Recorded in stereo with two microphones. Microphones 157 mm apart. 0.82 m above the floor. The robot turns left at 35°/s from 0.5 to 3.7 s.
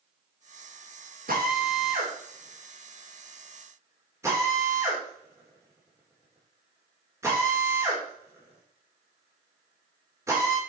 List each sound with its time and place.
1.3 s a drill: 70° right (ahead or behind), 3 m; by 10.6 s 20° right (ahead or behind), 3 m